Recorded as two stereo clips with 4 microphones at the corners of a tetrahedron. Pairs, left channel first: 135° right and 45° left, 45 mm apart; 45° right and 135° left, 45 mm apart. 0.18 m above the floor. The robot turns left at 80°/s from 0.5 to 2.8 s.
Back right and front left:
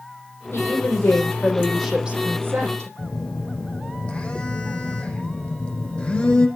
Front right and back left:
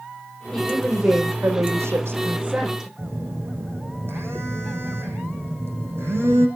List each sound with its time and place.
0.5 s a woman speaking: 120° right, 6.5 m; by 2.9 s 60° left, 6.5 m
3.0 s a phone buzzing: 160° left, 6 m